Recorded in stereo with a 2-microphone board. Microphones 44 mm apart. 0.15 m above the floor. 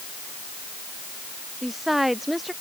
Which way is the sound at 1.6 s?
5° right (ahead or behind).